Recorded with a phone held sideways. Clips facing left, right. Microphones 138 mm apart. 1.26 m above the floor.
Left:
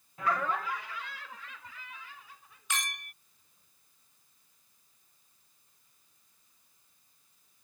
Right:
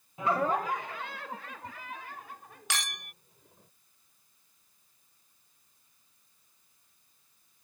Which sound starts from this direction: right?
A clink, at 2.7 s.